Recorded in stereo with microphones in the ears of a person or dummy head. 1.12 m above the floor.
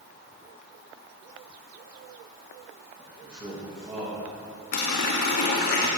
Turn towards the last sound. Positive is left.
turn(degrees=55)  # may be behind; listen again after turning